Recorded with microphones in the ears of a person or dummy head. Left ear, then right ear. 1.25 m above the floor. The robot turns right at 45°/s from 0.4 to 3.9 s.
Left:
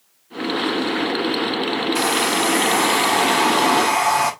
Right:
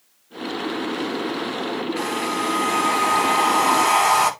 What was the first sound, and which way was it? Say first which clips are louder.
A hair dryer: left 6 dB; 105° left.